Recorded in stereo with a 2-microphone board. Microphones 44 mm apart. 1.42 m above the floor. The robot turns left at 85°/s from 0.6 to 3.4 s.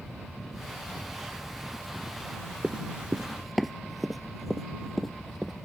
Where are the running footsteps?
20° right (ahead or behind); by 5.5 s centre (ahead or behind).